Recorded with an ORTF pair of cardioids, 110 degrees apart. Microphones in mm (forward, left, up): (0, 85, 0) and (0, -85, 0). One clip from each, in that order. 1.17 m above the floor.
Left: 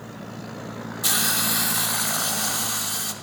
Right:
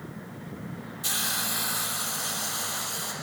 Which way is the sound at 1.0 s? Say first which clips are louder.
Left 6 dB; 40° left.